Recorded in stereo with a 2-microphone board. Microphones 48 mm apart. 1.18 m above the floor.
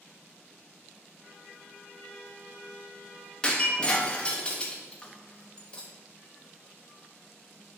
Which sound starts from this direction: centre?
Breaking glass, at 3.4 s.